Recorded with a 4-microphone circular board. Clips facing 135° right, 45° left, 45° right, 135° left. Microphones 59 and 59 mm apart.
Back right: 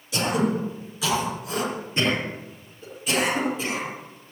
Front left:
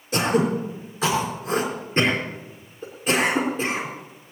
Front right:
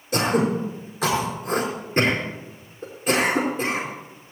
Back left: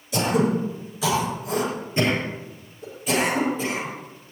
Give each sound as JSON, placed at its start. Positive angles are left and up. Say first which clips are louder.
{"t": 0.1, "sound": "throat clearing", "louder": "front left 3 dB, even", "azimuth_deg": -5, "distance_m": 4.5}